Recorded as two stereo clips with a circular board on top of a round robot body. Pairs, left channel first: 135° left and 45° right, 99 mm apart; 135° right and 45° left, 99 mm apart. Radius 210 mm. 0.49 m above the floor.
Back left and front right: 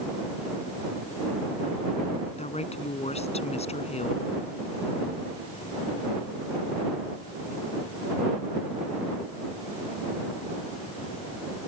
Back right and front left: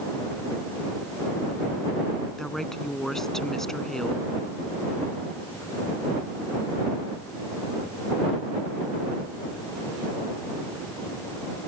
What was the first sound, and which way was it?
A woman speaking, 140° left.